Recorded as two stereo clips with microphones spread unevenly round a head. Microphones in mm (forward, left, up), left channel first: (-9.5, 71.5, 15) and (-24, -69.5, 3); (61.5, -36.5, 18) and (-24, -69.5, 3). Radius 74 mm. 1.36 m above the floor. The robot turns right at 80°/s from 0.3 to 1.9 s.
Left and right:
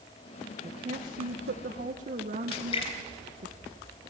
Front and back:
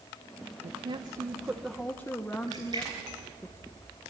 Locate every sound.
0.6 s a woman speaking: 155° right, 1.4 m; by 3.5 s 55° right, 1.4 m
2.5 s a splash: 135° left, 4 m